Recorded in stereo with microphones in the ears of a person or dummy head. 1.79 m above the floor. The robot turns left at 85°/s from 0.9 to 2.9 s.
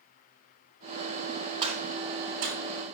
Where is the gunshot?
30° right (ahead or behind), 4 m; by 2.6 s 55° right (ahead or behind), 4 m.